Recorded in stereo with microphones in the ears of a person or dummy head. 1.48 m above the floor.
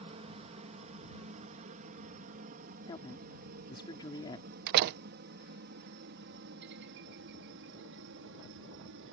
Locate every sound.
0.0 s a helicopter: 35° right (ahead or behind); by 9.1 s 65° right (ahead or behind)
2.9 s a woman speaking: 20° left (ahead or behind)
4.7 s a door slam: 60° right (ahead or behind)